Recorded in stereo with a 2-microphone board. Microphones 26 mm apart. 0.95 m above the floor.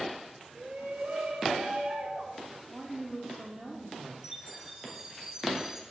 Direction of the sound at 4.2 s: 30° right (ahead or behind).